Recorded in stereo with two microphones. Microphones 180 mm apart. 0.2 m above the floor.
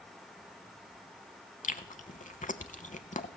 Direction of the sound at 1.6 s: 50° left (ahead or behind).